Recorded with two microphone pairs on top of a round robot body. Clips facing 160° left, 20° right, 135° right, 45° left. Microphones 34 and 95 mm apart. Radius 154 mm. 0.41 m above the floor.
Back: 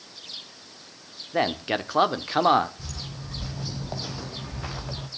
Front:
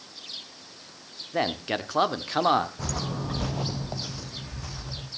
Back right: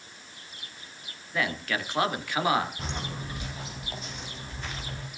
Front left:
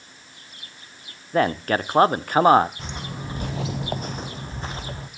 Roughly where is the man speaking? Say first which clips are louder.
Back 2 dB, front left 9 dB; left.